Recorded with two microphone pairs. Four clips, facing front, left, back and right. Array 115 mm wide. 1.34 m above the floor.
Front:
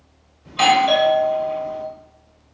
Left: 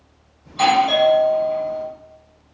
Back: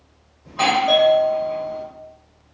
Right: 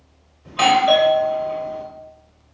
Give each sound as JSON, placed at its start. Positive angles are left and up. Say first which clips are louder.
{"t": 0.5, "sound": "a doorbell", "louder": "right 1 dB, front 3 dB", "azimuth_deg": -115, "distance_m": 0.9}